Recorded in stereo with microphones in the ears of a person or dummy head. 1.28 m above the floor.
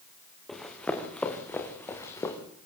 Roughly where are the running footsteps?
Centre.